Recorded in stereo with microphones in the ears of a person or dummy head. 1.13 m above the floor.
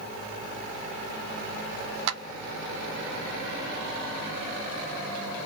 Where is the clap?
70° right (ahead or behind), 0.8 m.